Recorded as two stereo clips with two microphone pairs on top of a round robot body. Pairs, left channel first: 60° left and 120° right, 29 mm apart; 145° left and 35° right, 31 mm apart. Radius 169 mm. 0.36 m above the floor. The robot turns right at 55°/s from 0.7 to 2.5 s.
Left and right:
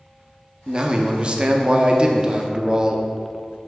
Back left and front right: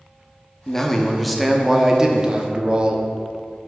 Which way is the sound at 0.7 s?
165° right.